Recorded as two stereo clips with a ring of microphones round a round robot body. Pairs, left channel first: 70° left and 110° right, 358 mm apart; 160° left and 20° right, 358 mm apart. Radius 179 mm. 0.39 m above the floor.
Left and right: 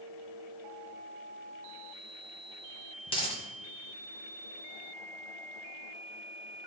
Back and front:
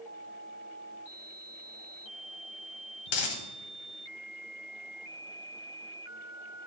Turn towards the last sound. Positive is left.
turn(degrees=145)